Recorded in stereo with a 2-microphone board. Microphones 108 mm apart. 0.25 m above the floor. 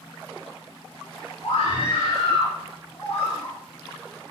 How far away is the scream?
About 3.5 m.